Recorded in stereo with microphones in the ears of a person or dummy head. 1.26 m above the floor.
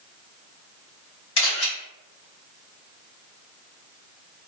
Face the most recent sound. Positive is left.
turn(degrees=75)  # may be behind; listen again after turning